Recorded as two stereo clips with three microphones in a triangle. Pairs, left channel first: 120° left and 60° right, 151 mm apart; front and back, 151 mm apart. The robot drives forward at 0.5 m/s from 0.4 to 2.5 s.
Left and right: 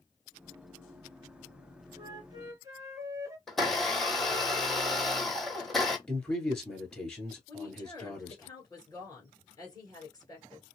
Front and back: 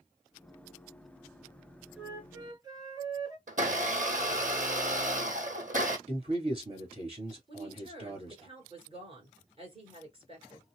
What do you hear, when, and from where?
2.0 s a flute: 95° right, 0.6 m; by 3.4 s 125° right, 0.7 m
3.5 s a blender: 150° right, 1.0 m
6.1 s a man speaking: 155° right, 1.7 m
7.5 s a woman speaking: 170° left, 1.7 m